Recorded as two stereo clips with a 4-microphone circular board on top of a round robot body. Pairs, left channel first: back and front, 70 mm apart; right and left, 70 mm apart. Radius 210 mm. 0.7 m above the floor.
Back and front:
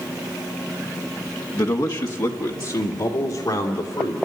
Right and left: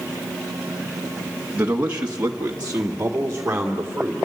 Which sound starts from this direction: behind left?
A man speaking, at 1.5 s.